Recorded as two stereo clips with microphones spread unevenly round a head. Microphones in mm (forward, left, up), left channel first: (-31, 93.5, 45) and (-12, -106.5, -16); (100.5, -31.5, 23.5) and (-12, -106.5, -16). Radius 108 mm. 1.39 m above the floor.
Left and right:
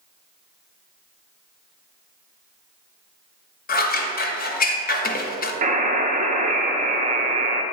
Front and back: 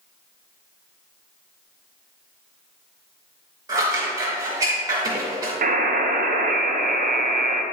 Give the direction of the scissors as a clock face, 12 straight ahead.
7 o'clock.